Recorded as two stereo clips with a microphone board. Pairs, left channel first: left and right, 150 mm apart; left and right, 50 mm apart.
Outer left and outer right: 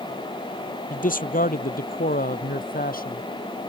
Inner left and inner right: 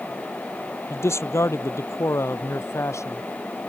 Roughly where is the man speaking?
Left.